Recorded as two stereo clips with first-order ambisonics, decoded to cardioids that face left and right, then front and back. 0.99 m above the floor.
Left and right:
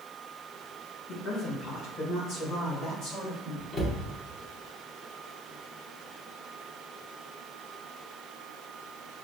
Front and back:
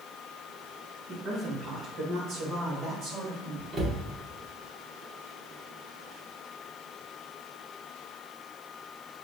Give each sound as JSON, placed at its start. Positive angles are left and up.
{"t": 1.1, "sound": "a woman speaking", "azimuth_deg": 120, "distance_m": 0.7}
{"t": 3.7, "sound": "a cupboard door", "azimuth_deg": 110, "distance_m": 0.8}